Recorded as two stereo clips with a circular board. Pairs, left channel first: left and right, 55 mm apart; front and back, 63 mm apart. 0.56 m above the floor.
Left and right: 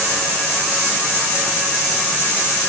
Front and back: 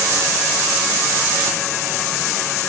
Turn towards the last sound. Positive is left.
No sound to turn to.